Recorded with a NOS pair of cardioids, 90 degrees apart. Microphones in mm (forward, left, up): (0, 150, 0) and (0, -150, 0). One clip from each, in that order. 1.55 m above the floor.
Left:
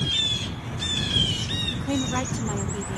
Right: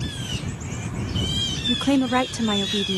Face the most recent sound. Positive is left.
turn(degrees=-65)